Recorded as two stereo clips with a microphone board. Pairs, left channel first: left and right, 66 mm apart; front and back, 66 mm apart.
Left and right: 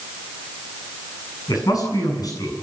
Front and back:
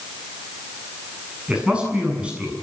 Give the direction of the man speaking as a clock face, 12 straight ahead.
8 o'clock.